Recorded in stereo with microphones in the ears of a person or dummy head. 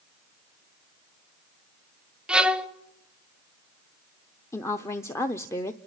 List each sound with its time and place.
2.3 s a violin: centre (ahead or behind), 1.1 m
4.5 s a woman speaking: 10° left (ahead or behind), 0.7 m